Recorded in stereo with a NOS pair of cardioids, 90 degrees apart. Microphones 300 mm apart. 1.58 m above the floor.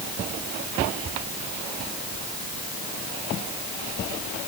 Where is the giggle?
I don't hear a giggle.